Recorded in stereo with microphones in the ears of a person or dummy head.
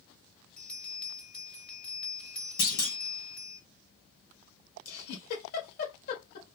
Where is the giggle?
65° left (ahead or behind), 1.7 m.